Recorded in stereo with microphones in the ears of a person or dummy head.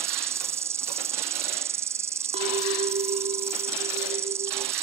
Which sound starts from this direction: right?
A clink, at 2.3 s.